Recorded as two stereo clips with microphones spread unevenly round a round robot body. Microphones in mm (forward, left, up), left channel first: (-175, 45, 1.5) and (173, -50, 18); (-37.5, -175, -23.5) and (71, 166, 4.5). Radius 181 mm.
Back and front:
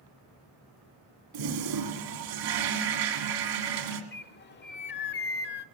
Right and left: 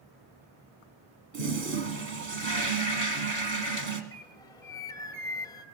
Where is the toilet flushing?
15° left, 1.7 m.